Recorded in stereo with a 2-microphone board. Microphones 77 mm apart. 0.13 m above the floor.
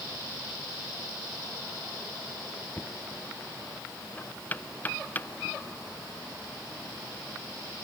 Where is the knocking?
20° left (ahead or behind).